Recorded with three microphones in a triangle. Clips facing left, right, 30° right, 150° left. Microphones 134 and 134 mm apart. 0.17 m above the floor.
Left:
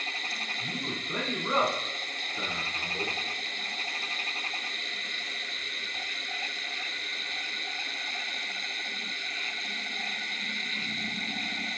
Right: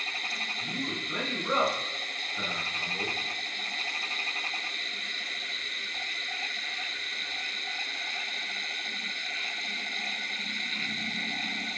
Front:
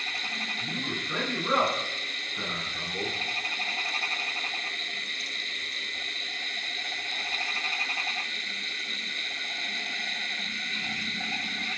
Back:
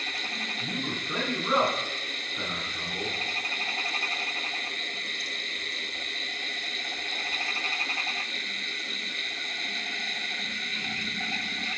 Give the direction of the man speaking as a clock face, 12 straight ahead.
8 o'clock.